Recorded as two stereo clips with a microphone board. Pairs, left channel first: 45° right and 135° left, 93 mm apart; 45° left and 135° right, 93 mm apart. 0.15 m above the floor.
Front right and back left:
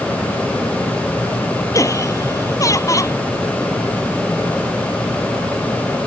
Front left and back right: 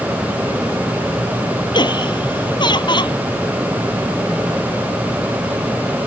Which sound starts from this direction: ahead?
Laughter, at 1.7 s.